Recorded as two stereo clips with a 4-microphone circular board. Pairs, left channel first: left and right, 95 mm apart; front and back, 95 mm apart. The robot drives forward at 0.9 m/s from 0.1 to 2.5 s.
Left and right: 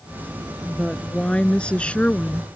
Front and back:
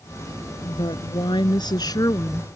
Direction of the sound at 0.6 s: 10° left.